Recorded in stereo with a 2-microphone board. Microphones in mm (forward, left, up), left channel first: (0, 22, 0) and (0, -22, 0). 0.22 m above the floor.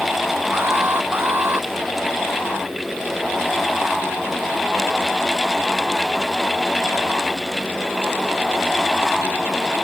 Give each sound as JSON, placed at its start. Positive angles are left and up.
{"t": 0.5, "sound": "an alarm", "side_deg": -50}